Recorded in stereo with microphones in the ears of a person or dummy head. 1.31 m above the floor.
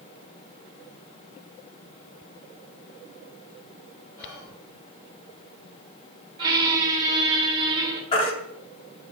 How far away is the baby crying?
About 1.7 m.